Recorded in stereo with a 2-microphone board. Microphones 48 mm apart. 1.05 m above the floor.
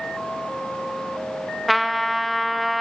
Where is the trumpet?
Centre (ahead or behind), 0.7 m.